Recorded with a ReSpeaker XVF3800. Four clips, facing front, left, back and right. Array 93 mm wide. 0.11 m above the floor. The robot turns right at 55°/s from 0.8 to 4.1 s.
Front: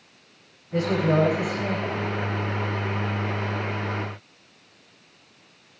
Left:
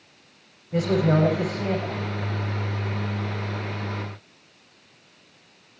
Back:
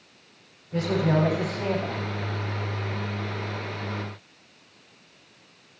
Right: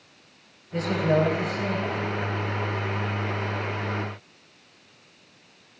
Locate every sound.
0.7 s a man speaking: 85° left, 8.5 m; by 2.1 s 155° left, 8.5 m